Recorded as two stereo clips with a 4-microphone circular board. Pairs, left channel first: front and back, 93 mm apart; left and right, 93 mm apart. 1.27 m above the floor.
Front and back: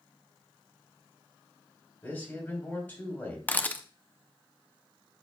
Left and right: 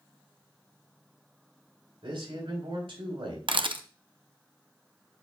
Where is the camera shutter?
70° right, 0.6 m.